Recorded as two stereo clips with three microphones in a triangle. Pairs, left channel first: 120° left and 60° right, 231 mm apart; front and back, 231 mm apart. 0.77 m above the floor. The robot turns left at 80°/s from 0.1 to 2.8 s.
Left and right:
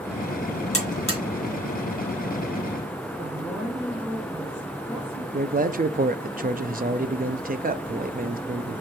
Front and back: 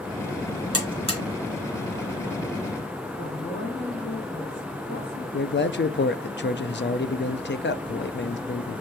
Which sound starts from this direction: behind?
A buzzer, at 0.7 s.